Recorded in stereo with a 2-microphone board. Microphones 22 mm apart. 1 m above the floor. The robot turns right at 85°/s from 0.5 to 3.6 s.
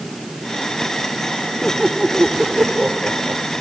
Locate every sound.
1.6 s laughter: 155° left; by 3.5 s 45° right